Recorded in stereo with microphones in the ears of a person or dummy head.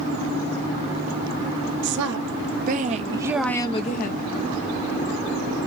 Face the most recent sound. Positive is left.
turn(degrees=55)  # may be behind; listen again after turning